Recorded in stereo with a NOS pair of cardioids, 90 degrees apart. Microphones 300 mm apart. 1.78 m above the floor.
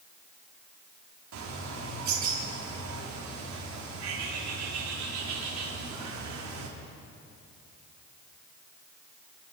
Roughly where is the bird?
Ahead right.